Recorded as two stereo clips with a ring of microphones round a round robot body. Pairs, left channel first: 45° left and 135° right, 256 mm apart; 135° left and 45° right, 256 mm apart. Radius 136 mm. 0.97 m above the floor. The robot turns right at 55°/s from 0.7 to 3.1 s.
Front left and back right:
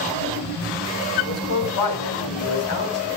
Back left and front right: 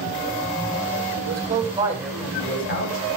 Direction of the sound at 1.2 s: Straight ahead.